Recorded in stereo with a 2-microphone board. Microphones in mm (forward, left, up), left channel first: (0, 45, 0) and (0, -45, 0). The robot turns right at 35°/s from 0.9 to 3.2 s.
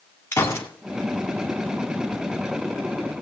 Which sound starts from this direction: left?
A gunshot, at 0.3 s.